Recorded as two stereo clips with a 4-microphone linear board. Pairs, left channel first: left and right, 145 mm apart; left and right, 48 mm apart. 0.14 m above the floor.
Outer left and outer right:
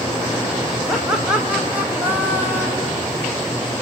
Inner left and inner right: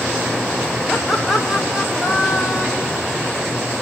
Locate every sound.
0.9 s laughter: 5° right (ahead or behind), 5.5 m; by 3.0 s 20° right (ahead or behind), 5.5 m